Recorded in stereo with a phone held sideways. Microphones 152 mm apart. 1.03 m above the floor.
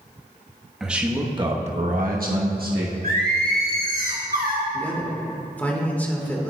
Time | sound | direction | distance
0.8 | a man speaking | 5° right (ahead or behind) | 1.2 m
3.0 | singing | 75° right (ahead or behind) | 1.2 m
4.7 | a man speaking | 10° left (ahead or behind) | 1.3 m